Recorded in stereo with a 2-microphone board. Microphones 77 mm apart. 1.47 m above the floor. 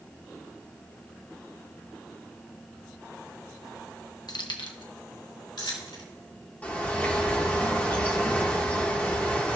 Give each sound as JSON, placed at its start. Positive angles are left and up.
{"t": 4.3, "sound": "keys jangling", "side_deg": 60, "distance_m": 0.7}
{"t": 6.6, "sound": "a bird", "side_deg": 20, "distance_m": 1.8}